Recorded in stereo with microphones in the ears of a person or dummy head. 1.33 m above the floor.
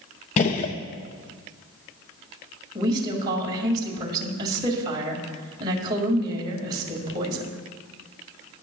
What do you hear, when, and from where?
0.4 s a gunshot: 45° left (ahead or behind), 0.8 m
2.8 s a woman speaking: 25° right (ahead or behind), 2 m